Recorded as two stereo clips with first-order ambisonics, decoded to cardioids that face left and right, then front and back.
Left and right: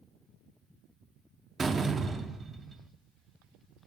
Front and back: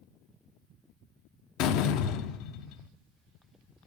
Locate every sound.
1.6 s a door slam: 15° right, 0.5 m